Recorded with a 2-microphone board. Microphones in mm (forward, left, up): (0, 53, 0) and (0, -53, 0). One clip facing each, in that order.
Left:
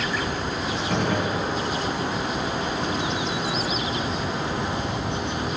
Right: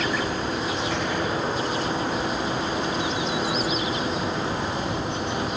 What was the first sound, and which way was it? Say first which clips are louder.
A gunshot: left 2 dB; 50° left (ahead or behind).